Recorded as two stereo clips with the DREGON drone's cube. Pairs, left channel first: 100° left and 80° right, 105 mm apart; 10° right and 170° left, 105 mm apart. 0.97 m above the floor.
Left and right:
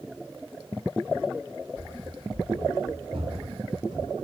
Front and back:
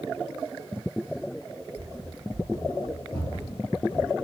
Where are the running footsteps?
65° right, 4 m; by 4.2 s 30° right, 3 m.